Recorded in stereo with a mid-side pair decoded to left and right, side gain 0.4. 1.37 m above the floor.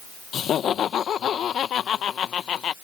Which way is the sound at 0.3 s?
65° left.